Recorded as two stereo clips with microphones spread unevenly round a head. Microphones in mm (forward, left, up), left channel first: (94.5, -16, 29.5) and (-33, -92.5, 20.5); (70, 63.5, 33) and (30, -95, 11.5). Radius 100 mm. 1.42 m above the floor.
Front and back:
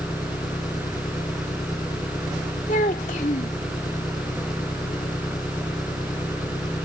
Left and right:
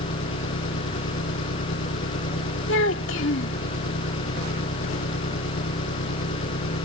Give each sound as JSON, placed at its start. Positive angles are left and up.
{"t": 0.0, "sound": "an engine running", "azimuth_deg": 100}
{"t": 2.7, "sound": "a child speaking", "azimuth_deg": 85}